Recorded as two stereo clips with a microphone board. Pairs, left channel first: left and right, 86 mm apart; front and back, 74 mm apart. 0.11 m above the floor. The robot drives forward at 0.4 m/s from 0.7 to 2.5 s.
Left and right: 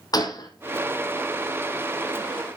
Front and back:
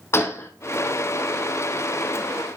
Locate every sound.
0.1 s a gunshot: 55° left, 1.5 m